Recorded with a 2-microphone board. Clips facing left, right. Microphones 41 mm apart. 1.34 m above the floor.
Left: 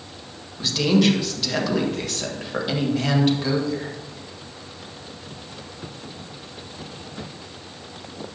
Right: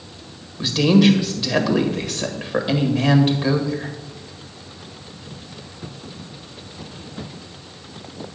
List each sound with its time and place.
0.6 s a woman speaking: 10° right (ahead or behind), 1.8 m